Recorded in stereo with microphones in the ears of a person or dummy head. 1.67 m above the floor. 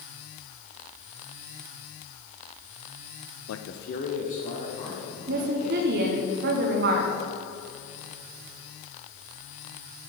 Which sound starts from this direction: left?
A man speaking, at 3.5 s.